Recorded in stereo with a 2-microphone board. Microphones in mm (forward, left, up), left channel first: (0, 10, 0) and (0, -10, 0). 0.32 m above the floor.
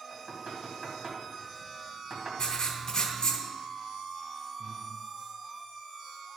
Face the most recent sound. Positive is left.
turn(degrees=-60)  # may be behind; listen again after turning